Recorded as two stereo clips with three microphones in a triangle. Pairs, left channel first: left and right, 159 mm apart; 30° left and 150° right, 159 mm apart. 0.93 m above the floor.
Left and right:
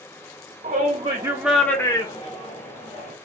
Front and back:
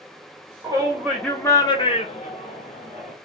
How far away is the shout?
About 0.9 m.